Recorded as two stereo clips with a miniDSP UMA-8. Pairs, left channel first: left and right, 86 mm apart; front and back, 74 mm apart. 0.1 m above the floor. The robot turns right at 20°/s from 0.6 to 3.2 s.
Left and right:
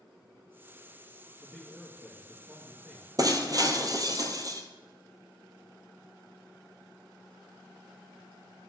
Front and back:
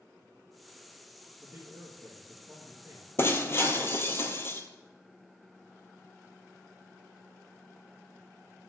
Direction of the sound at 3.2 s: 50° right.